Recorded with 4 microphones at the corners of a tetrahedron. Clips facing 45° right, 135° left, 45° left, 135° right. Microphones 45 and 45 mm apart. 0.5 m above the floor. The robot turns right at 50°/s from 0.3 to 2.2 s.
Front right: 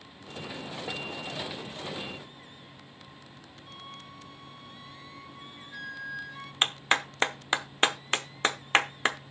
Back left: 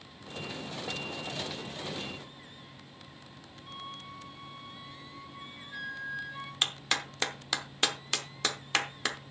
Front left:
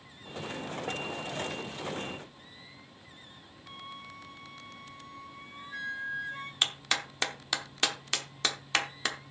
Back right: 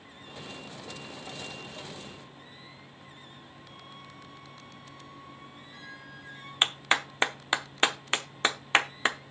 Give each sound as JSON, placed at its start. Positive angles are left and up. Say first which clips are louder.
{"t": 3.7, "sound": "a flute", "louder": "back left 3 dB, front left 7 dB", "azimuth_deg": 60, "distance_m": 1.4}
{"t": 6.6, "sound": "a clap", "louder": "front right 6 dB, back right 5 dB", "azimuth_deg": -85, "distance_m": 0.7}